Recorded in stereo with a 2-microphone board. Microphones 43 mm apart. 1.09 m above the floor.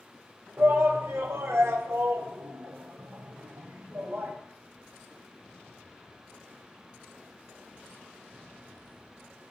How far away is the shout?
About 3 m.